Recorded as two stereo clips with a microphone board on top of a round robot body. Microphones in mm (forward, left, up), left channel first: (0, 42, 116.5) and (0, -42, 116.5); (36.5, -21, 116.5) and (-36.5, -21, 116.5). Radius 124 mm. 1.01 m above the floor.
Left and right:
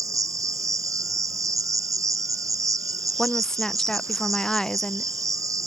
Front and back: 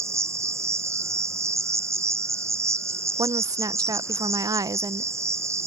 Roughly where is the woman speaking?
Behind.